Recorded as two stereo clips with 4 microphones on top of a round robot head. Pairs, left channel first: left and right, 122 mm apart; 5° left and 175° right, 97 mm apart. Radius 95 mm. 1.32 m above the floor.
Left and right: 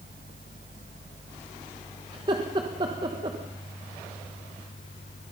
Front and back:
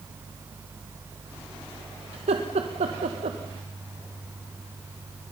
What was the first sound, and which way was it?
Laughter, 150° right.